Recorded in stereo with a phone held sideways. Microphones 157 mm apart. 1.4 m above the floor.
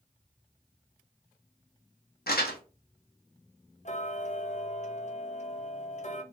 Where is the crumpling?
75° left (ahead or behind), 1.0 m.